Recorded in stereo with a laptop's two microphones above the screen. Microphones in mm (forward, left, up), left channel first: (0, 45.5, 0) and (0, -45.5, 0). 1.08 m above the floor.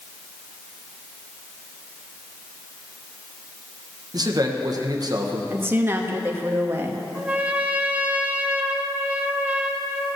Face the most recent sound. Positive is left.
turn(degrees=-15)  # may be behind; listen again after turning